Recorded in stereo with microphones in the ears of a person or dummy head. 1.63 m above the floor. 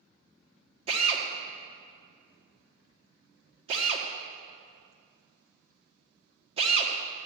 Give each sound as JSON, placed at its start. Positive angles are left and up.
{"t": 0.9, "sound": "a drill", "side_deg": -30, "distance_m": 1.6}